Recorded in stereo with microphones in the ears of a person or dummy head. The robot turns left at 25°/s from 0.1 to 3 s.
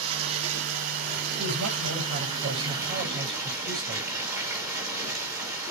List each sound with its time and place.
0.0 s running water: 90° right, 6 m; by 5.7 s 165° right, 6 m
1.4 s a woman speaking: 95° right, 8.5 m; by 4.1 s 135° right, 8.5 m